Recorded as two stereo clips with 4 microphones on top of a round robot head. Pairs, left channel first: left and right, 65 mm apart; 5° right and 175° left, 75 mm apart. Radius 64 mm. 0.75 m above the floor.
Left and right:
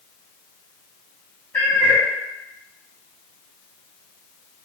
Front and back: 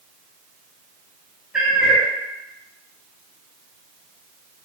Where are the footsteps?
No footsteps in this recording.